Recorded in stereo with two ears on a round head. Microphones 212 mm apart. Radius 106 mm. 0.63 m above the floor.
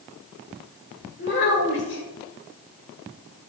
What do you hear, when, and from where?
1.2 s a child speaking: 50° left (ahead or behind), 1.8 m